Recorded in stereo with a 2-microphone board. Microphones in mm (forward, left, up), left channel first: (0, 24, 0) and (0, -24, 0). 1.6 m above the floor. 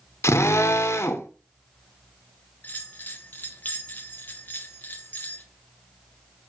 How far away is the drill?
About 0.8 m.